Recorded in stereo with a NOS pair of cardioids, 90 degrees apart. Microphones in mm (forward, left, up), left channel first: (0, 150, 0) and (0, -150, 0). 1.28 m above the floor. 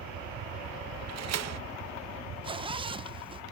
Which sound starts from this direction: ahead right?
A door slam, at 1.1 s.